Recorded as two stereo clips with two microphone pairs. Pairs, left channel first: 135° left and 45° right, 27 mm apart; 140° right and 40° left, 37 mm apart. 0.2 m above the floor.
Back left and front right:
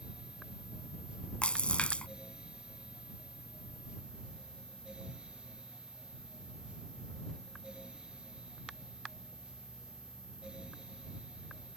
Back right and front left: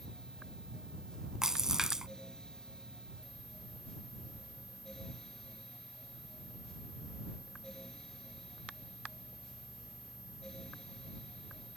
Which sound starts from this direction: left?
A splash, at 1.4 s.